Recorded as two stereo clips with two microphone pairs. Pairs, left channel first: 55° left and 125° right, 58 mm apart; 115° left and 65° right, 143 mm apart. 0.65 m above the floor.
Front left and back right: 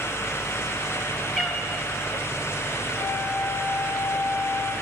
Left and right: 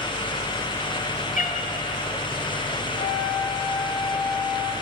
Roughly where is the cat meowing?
Behind left.